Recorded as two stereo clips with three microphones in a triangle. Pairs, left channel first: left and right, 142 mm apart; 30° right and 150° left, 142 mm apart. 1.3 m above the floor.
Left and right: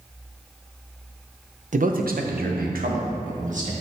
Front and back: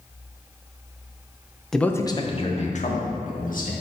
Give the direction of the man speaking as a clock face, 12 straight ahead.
4 o'clock.